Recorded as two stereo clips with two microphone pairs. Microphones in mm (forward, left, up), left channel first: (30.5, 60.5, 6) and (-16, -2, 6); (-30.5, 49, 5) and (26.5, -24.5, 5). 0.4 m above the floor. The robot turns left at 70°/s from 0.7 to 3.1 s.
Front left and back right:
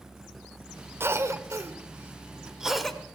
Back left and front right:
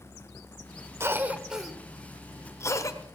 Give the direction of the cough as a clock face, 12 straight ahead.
3 o'clock.